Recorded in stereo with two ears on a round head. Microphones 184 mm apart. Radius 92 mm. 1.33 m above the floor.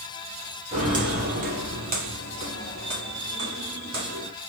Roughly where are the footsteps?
Right.